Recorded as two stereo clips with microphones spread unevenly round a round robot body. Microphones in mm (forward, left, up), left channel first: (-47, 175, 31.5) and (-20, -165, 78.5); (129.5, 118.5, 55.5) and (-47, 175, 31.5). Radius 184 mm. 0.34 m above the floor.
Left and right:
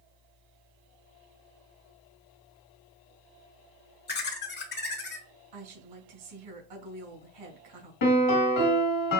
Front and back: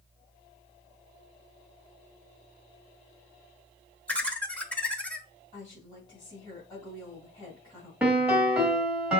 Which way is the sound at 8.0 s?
80° left.